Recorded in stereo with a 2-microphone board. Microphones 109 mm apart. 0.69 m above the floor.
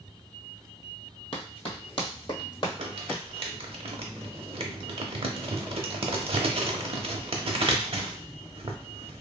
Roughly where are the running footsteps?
Left.